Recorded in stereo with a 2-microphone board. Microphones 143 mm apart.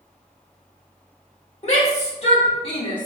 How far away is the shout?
About 1.3 m.